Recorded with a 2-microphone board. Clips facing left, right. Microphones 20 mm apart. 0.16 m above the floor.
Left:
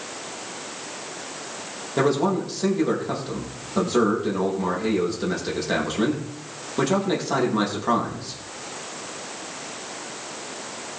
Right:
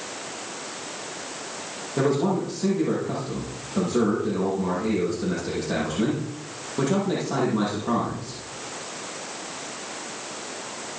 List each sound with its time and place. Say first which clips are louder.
2.0 s a man speaking: left 2 dB; 35° left (ahead or behind), 5 m